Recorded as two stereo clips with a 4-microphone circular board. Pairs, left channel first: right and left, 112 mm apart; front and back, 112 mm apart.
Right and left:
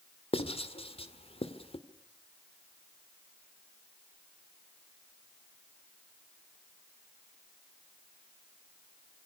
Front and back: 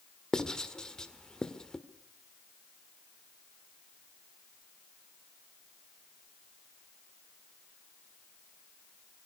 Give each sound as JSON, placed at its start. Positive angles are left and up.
{"t": 0.3, "sound": "writing", "azimuth_deg": -85, "distance_m": 1.8}